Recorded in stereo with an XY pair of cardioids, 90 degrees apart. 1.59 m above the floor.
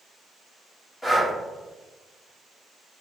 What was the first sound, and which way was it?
Breathing, 5° left.